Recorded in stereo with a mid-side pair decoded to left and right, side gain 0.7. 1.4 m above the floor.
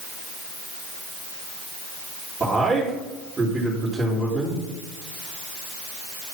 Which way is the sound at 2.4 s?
15° right.